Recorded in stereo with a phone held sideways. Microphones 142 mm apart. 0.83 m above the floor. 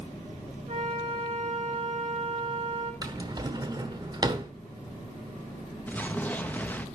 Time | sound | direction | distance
0.7 | a flute | 50° right (ahead or behind) | 4.5 m
3.0 | a drawer | 30° right (ahead or behind) | 1.1 m
5.9 | an explosion | 10° left (ahead or behind) | 0.7 m